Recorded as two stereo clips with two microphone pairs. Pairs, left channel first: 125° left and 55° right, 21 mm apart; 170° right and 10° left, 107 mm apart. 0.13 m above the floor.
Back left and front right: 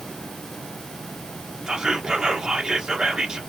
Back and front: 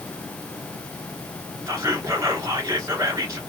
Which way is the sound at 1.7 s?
25° right.